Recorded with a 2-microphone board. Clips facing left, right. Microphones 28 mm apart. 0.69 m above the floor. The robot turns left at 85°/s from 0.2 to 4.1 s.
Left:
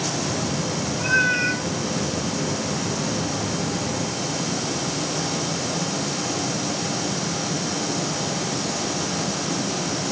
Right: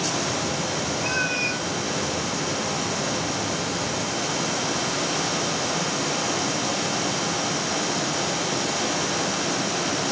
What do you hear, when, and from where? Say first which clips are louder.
1.0 s a cat meowing: left 7 dB; 135° left, 3 m; by 1.6 s 80° left, 3 m